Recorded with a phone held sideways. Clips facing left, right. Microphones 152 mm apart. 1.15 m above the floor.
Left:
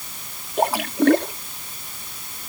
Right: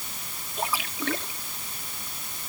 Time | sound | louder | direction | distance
0.6 | a splash | left 12 dB | 65° left (ahead or behind) | ?